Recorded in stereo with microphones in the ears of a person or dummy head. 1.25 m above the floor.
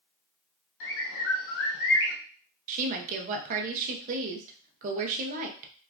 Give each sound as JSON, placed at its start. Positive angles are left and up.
{"t": 0.8, "sound": "a bird", "side_deg": 60, "distance_m": 0.7}
{"t": 2.7, "sound": "a woman speaking", "side_deg": -45, "distance_m": 0.6}